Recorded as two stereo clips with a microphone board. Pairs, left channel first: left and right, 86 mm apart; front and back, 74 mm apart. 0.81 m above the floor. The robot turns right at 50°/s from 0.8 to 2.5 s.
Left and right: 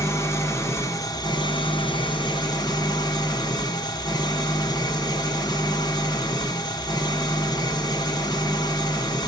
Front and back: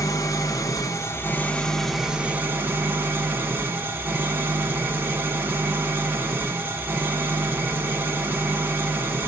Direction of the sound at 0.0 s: 35° left.